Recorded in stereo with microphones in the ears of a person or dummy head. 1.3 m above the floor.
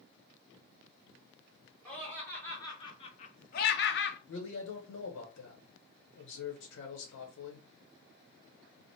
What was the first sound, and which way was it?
Laughter, 5° left (ahead or behind).